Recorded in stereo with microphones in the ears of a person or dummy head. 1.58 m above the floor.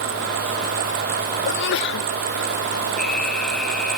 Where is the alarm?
Centre (ahead or behind).